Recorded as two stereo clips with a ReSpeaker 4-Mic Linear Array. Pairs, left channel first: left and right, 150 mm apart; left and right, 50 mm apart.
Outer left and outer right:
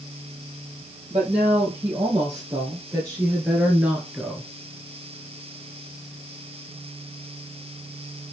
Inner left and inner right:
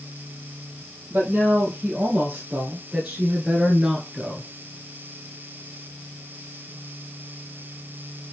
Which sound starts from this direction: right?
A woman speaking, at 1.1 s.